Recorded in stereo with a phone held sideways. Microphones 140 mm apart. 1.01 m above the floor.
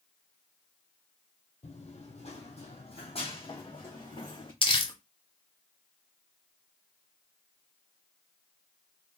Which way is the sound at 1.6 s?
55° left (ahead or behind).